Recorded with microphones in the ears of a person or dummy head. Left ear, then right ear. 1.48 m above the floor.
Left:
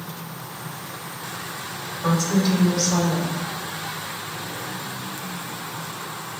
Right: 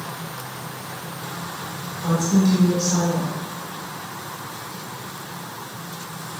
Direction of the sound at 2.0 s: 70° left (ahead or behind).